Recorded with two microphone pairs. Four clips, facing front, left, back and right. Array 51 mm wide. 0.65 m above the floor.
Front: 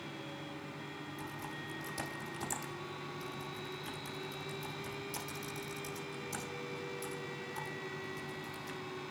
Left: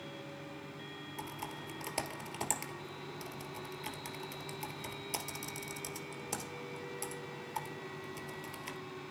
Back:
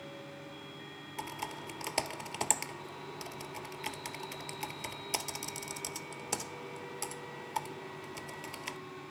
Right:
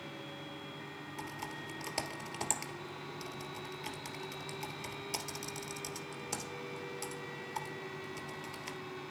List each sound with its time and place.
1.2 s typing on a keyboard: 175° right, 2.5 m